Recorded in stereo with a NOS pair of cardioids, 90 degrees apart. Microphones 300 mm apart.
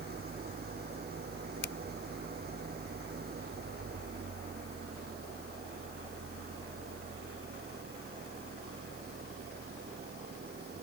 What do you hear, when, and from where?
0.0 s an engine running: 30° right
1.6 s a finger snap: 40° left